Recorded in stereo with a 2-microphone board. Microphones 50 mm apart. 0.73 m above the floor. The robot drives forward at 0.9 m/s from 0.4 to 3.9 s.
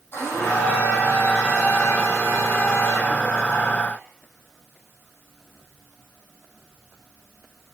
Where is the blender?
55° left (ahead or behind), 9 m; by 4.0 s 40° left (ahead or behind), 11.5 m.